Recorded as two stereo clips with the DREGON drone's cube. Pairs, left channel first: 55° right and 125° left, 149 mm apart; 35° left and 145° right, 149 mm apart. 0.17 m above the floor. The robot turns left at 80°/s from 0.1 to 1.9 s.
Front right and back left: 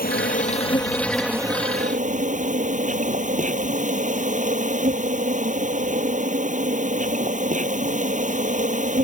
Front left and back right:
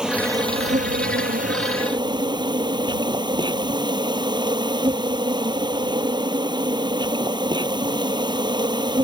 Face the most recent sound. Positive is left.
turn(degrees=155)